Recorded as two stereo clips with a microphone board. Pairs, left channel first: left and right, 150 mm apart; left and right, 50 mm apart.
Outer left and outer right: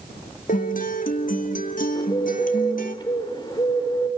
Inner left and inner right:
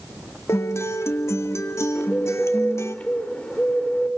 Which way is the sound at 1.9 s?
30° left (ahead or behind).